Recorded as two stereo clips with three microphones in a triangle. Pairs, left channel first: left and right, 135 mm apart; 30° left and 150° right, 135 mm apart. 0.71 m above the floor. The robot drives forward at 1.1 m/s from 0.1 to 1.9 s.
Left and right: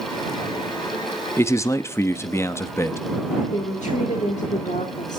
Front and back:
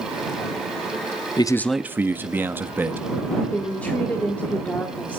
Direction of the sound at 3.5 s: 110° left.